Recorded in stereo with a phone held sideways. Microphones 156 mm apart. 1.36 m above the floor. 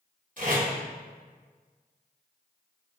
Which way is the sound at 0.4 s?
55° right (ahead or behind).